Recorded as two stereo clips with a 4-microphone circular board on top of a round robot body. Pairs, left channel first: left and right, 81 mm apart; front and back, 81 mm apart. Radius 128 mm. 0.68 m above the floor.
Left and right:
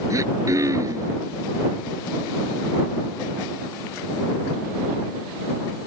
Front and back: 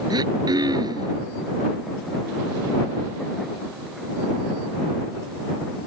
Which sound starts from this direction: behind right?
Throat clearing, at 0.1 s.